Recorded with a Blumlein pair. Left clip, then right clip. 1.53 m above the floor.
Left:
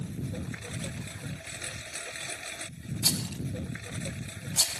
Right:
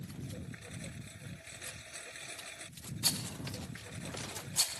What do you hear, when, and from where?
0.0 s a lawn mower: 65° left
3.0 s a rattle: 15° left